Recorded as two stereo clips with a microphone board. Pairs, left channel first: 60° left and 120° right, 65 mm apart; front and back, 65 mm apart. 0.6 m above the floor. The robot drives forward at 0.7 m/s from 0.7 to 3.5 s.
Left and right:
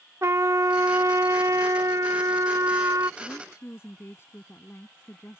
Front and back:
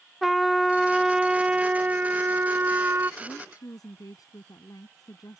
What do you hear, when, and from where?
0.2 s a trumpet: 90° right; by 3.1 s 140° right
3.2 s a woman speaking: 10° left